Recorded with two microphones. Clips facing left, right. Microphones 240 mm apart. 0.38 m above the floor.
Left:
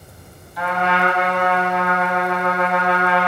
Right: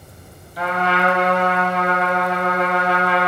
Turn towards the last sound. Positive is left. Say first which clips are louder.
# even
turn(degrees=-40)  # may be behind; listen again after turning